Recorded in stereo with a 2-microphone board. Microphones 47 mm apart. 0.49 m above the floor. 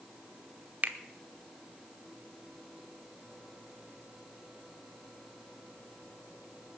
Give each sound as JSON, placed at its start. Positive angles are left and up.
{"t": 0.8, "sound": "a finger snap", "side_deg": -40, "distance_m": 0.9}